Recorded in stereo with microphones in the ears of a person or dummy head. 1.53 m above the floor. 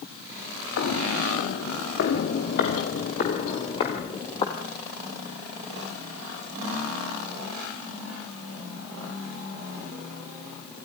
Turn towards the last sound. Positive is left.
turn(degrees=25)  # may be behind; listen again after turning